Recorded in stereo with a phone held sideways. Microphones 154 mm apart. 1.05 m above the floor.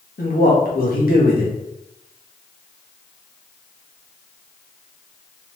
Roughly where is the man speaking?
Left.